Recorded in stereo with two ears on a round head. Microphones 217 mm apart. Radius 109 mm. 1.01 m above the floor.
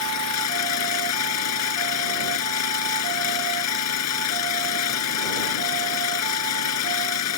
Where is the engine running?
80° left.